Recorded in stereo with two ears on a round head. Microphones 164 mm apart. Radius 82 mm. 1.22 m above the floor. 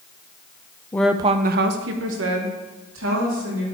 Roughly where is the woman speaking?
Centre.